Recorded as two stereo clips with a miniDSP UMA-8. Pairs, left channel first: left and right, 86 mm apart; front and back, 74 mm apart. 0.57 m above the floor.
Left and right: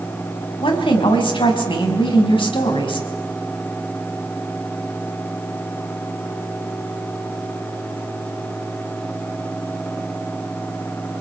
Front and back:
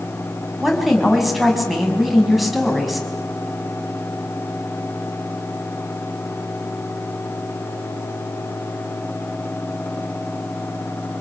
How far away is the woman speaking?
About 5 m.